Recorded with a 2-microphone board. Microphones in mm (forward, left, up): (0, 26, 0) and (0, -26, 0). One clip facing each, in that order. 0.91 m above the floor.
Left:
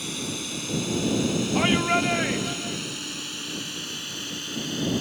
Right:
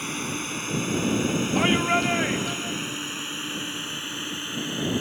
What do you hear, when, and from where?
0.0 s a drone: 40° right (ahead or behind); by 5.0 s 25° right (ahead or behind)
1.6 s a shout: 5° right (ahead or behind)